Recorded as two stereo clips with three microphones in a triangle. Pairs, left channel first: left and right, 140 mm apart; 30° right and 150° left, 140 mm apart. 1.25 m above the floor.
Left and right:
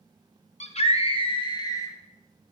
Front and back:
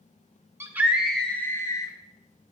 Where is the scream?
85° left, 0.8 m; by 1.9 s 25° left, 1.1 m.